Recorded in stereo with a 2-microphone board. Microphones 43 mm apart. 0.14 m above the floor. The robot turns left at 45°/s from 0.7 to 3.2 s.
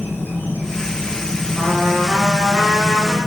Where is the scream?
I don't hear a scream.